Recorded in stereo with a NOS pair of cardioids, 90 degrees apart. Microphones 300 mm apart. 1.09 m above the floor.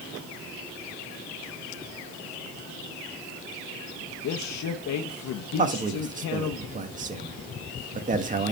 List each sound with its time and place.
4.2 s a man speaking: 65° left, 0.9 m
5.6 s a man speaking: 25° right, 1.6 m